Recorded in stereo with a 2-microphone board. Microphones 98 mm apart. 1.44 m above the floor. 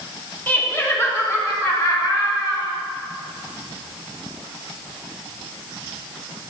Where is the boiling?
No boiling in this recording.